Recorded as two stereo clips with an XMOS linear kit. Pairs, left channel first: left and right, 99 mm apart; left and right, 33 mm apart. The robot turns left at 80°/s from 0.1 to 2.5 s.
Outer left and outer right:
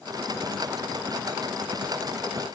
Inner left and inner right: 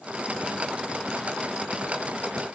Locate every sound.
Only background noise.